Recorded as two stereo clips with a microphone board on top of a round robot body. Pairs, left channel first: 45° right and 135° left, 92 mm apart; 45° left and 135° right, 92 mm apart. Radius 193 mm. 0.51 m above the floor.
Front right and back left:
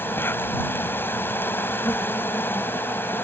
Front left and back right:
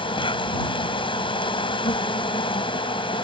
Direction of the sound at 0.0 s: 20° left.